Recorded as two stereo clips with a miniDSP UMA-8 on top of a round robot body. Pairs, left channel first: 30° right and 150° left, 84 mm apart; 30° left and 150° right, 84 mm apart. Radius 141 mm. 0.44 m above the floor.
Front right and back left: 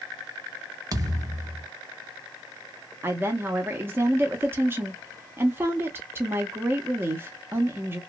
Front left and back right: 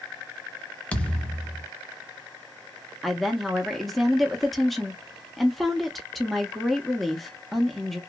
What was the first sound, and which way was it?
A thud, 105° left.